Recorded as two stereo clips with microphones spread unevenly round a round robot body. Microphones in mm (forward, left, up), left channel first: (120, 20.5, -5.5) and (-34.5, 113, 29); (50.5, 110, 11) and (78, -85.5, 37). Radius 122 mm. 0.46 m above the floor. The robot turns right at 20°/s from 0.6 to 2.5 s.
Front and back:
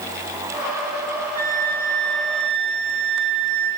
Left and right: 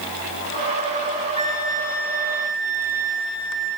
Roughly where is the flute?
Behind.